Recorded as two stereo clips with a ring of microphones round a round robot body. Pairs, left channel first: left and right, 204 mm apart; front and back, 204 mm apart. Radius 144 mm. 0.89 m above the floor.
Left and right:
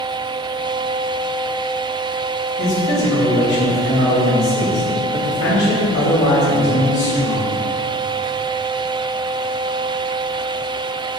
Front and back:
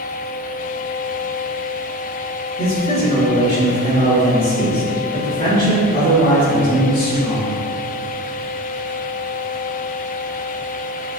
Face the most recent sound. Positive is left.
turn(degrees=60)